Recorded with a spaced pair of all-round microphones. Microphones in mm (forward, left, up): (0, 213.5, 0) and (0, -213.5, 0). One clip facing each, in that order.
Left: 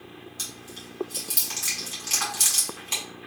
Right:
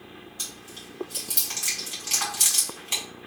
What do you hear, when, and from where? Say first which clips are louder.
0.4 s chewing: left 2 dB; 55° left (ahead or behind), 2 m